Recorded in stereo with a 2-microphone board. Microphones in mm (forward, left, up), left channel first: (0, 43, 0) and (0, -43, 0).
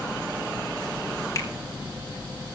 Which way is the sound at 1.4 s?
40° left (ahead or behind).